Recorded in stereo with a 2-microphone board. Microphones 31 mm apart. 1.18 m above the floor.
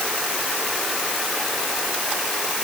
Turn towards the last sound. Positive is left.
No sound to turn to.